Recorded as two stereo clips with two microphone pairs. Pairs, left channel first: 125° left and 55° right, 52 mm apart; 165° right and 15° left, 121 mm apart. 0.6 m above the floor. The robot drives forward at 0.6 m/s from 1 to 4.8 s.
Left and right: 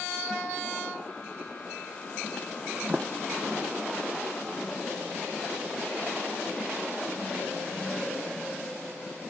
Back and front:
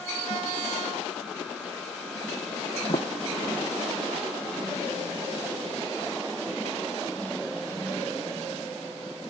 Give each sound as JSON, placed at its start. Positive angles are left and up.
{"t": 2.9, "sound": "a sliding door", "azimuth_deg": -125}